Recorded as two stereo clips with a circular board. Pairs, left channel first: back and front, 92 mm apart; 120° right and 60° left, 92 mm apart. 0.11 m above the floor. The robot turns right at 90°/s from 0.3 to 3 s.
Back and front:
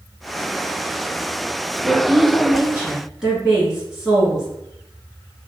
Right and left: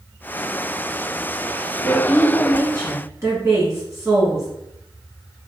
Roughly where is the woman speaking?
Ahead right.